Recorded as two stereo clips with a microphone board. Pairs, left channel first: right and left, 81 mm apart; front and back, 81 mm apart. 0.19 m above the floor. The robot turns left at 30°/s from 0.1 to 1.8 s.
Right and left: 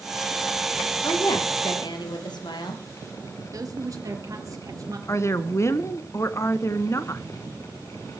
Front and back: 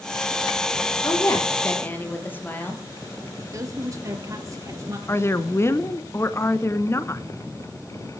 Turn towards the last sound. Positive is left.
turn(degrees=-45)